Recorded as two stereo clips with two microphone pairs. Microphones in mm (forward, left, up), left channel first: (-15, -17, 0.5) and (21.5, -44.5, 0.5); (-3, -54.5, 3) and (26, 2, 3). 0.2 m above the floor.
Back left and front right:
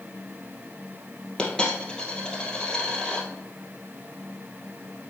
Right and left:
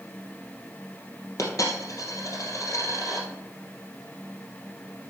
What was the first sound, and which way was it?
A dropped coin, 145° right.